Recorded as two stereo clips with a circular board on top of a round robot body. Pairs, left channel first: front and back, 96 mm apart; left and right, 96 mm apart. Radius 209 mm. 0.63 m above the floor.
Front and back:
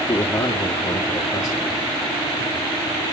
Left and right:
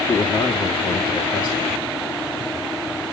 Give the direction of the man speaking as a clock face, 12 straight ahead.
10 o'clock.